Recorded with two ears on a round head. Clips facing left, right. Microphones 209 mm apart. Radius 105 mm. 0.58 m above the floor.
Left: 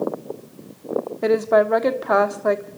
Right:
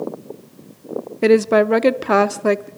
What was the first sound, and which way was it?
A woman speaking, 40° right (ahead or behind).